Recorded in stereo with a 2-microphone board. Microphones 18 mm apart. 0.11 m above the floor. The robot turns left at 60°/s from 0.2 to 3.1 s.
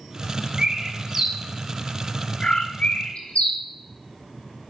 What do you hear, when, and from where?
0.6 s a bird: 40° right (ahead or behind), 1.1 m; by 3.6 s 65° left (ahead or behind), 1.1 m